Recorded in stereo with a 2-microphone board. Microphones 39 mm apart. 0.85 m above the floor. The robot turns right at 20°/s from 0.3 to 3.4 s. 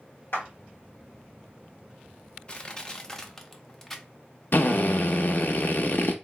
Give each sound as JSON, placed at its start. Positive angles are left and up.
{"t": 0.3, "sound": "a clap", "side_deg": 75, "distance_m": 1.4}
{"t": 2.5, "sound": "crushing", "side_deg": 25, "distance_m": 0.5}
{"t": 4.5, "sound": "a drill", "side_deg": 55, "distance_m": 0.6}